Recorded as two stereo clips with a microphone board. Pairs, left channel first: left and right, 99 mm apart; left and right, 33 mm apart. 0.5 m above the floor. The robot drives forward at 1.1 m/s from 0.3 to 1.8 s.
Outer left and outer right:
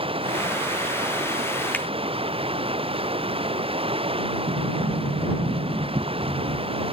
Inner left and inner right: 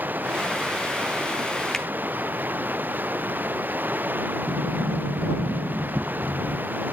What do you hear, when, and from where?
0.0 s running water: 65° right (ahead or behind); by 6.9 s 70° right (ahead or behind)
1.7 s a finger snap: 15° left (ahead or behind)
4.5 s a sliding door: 50° right (ahead or behind)